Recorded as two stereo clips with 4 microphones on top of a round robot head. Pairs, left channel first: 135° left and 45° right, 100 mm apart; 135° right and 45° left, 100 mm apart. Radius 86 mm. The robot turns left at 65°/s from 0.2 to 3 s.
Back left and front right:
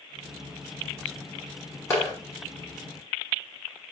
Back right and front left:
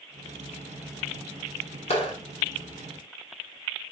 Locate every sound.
1.9 s a clap: 155° right, 2.5 m; by 2.1 s 175° right, 2.5 m